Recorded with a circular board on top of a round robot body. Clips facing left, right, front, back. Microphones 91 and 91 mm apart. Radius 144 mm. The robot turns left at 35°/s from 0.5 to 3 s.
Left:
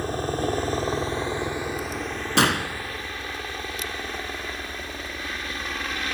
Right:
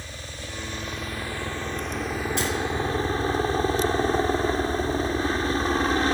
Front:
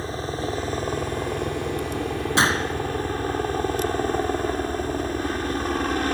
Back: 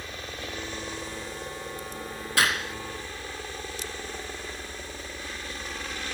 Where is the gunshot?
65° left; by 2.8 s 50° left.